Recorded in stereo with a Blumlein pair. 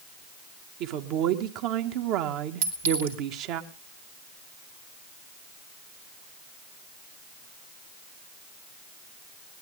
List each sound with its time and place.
0.8 s a woman speaking: 40° right, 2 m
2.6 s a clink: 60° right, 3 m